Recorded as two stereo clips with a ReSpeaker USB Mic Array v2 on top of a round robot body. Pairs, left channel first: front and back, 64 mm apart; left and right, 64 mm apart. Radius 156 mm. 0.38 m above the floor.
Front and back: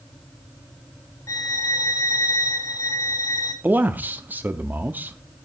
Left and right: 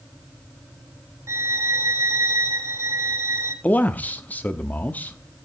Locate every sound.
1.3 s a violin: 40° right, 1.2 m
3.6 s a man speaking: 140° left, 1.0 m